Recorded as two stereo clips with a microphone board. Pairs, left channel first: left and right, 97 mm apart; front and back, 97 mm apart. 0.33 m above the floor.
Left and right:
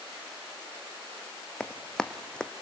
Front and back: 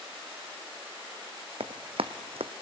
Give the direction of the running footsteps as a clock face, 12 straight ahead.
6 o'clock.